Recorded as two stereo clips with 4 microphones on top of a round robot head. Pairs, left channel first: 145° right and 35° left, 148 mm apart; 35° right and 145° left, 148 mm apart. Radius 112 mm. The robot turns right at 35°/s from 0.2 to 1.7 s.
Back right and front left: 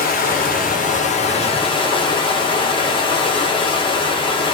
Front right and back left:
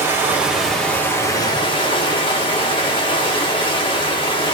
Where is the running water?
140° right, 0.9 m; by 4.5 s 90° right, 0.9 m.